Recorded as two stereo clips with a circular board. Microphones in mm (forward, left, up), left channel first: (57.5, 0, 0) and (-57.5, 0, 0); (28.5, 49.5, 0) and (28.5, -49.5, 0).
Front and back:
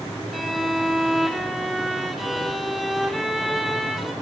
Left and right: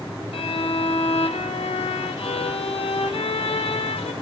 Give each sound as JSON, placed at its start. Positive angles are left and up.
{"t": 0.3, "sound": "a violin", "azimuth_deg": 90, "distance_m": 0.6}